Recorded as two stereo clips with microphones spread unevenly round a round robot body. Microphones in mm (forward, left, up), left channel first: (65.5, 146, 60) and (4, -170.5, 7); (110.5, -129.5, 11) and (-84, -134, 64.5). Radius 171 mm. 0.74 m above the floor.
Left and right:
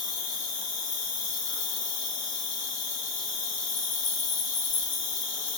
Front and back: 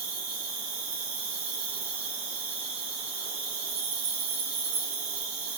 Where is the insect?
140° left, 0.9 m.